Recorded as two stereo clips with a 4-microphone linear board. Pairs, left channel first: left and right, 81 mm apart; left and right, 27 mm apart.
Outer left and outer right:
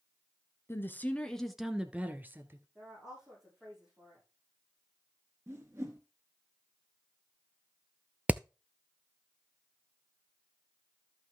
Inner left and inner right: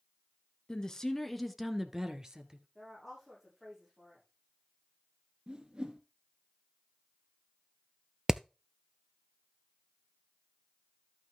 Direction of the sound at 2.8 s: 5° right (ahead or behind).